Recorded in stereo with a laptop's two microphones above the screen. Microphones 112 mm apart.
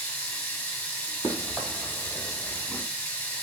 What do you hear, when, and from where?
0.0 s running water: 20° left (ahead or behind), 0.7 m
1.2 s running footsteps: 30° right (ahead or behind), 1.9 m; by 2.8 s 20° left (ahead or behind), 1.4 m